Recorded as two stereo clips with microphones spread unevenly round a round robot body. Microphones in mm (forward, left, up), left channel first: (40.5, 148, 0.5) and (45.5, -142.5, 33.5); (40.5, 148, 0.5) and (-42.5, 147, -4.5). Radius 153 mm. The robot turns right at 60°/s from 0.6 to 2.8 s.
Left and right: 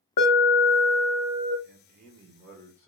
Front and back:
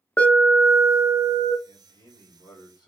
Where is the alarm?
75° left, 1.0 m; by 1.5 s 130° left, 1.0 m.